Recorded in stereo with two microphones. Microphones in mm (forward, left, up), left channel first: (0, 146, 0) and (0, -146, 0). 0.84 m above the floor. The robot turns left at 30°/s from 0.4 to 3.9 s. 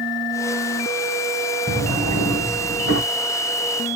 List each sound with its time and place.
1.7 s a drawer: 15° right, 2.5 m; by 3.0 s 55° right, 2.5 m